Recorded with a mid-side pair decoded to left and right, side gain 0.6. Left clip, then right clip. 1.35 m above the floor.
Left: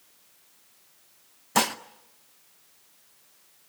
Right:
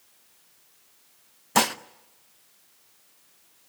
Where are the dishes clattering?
10° right, 0.8 m.